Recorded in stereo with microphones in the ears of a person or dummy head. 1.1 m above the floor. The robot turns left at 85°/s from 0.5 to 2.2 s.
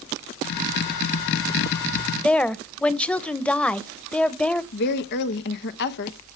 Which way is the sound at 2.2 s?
5° left (ahead or behind).